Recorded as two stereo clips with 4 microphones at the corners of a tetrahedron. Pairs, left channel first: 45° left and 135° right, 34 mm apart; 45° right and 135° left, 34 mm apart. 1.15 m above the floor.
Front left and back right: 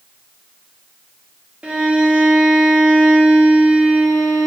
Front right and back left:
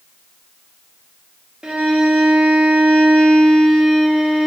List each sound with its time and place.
1.6 s a violin: 170° right, 0.8 m